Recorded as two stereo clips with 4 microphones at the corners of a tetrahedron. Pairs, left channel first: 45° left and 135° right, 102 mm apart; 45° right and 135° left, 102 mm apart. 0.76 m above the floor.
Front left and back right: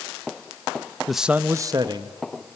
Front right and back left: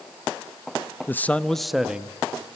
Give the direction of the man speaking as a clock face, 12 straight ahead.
1 o'clock.